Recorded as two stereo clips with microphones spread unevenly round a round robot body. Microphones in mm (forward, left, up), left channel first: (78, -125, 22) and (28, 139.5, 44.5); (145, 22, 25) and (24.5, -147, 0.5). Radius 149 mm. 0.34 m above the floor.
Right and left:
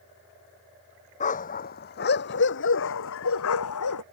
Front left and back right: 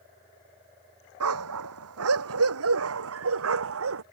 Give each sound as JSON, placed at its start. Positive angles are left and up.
{"t": 1.2, "sound": "a dog barking", "azimuth_deg": -145}